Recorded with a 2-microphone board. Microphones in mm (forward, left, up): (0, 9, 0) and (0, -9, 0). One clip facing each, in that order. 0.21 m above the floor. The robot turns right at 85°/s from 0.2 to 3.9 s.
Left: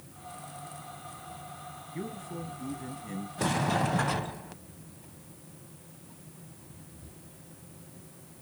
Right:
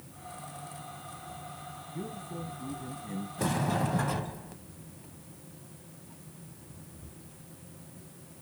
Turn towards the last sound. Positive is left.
turn(degrees=25)  # may be behind; listen again after turning